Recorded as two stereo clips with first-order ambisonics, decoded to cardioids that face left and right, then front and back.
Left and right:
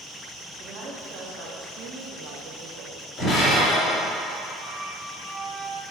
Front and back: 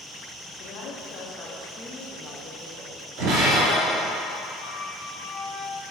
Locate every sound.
0.5 s a woman speaking: 40° right, 1.9 m; by 3.0 s 120° right, 1.2 m
3.2 s breaking glass: 170° left, 2 m
4.6 s a flute: 35° right, 1.2 m